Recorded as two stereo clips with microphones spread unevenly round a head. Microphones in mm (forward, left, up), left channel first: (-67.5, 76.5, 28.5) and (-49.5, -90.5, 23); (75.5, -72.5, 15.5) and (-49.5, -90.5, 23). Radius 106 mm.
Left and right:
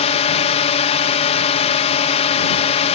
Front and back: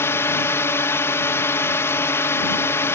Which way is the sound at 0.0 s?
70° left.